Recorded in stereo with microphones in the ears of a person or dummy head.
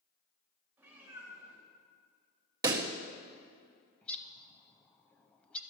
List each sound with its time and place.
0.8 s a cat meowing: 10° right (ahead or behind), 3 m
2.6 s a pop: 25° right (ahead or behind), 0.5 m
4.0 s a bird: 10° left (ahead or behind), 0.5 m